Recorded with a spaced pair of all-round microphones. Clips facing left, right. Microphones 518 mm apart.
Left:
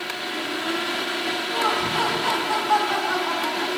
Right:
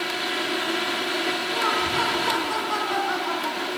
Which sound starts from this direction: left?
Laughter, at 1.5 s.